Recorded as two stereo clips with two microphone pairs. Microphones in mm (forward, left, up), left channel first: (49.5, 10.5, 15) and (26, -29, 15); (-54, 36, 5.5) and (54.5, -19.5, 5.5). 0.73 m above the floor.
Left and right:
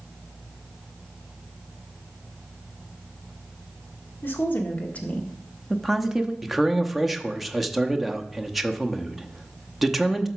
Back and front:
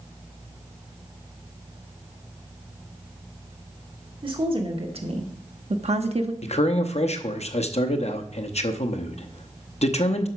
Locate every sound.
4.2 s a woman speaking: 15° left, 1.6 m; by 6.3 s 50° right, 0.8 m
6.4 s a man speaking: 155° left, 0.8 m